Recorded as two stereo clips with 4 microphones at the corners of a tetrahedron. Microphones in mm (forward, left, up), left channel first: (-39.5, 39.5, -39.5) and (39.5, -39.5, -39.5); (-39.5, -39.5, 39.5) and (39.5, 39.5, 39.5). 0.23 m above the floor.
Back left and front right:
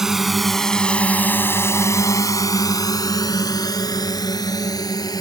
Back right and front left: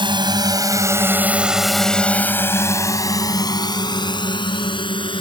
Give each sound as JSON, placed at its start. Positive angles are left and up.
{"t": 0.0, "sound": "a drone", "azimuth_deg": 40}